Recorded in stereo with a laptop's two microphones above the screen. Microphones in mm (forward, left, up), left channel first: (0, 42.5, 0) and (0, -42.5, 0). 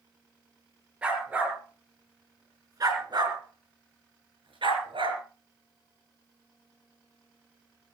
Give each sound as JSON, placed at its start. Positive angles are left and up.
{"t": 1.0, "sound": "a dog barking", "side_deg": -10, "distance_m": 5.0}